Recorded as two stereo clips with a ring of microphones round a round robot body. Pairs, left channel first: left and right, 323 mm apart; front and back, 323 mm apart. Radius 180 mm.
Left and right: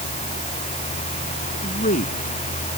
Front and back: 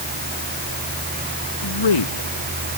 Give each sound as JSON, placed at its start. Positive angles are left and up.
{"t": 1.6, "sound": "a man speaking", "azimuth_deg": 20}